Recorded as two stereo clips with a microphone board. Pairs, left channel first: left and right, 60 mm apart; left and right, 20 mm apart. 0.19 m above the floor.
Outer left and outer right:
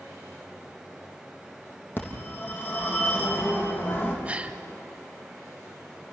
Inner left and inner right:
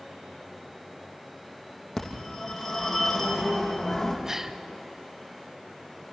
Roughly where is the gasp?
Right.